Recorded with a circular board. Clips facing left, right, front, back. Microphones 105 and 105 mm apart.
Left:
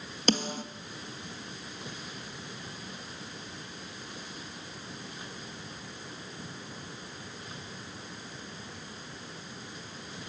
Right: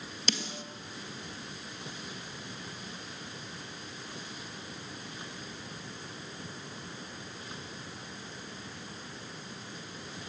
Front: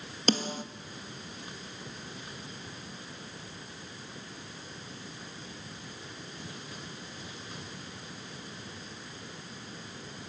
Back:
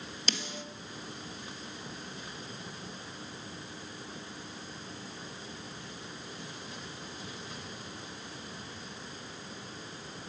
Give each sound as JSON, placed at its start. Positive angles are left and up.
{"t": 0.3, "sound": "a snare drum", "azimuth_deg": 45, "distance_m": 1.8}